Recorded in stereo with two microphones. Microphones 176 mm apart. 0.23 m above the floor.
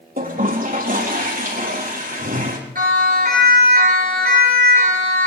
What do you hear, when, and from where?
0.2 s a toilet flushing: 55° right (ahead or behind), 5 m
2.8 s a siren: 55° right (ahead or behind), 10 m; by 5.3 s 45° right (ahead or behind), 10 m